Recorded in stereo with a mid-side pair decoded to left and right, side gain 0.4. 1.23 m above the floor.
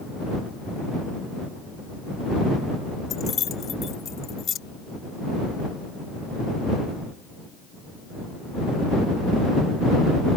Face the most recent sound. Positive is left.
turn(degrees=60)